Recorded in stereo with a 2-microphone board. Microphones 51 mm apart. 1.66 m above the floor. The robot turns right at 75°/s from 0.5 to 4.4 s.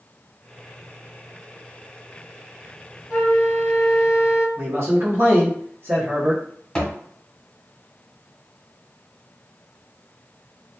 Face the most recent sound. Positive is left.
turn(degrees=15)  # may be behind; listen again after turning